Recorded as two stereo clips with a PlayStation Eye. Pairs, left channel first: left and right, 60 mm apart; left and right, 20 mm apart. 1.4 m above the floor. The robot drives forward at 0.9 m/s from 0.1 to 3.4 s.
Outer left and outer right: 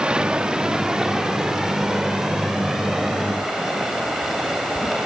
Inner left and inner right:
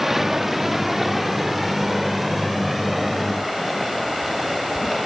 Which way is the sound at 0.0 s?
15° right (ahead or behind).